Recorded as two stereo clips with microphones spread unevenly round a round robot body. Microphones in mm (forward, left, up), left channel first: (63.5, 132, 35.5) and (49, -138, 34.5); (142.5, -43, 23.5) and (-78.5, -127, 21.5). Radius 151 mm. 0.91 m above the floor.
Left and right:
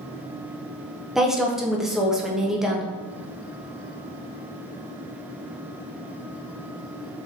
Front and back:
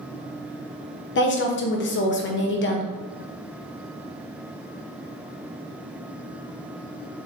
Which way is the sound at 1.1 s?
5° right.